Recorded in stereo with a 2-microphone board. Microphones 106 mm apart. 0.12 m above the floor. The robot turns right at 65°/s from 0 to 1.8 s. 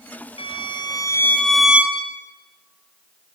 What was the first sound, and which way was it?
A violin, 100° left.